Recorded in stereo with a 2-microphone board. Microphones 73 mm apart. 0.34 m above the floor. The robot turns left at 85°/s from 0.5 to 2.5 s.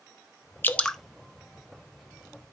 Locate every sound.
0.6 s dripping: 30° left (ahead or behind), 0.5 m; by 1.0 s centre (ahead or behind), 0.5 m